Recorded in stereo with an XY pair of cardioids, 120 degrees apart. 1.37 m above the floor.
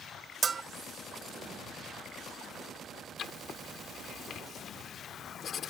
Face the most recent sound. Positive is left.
turn(degrees=50)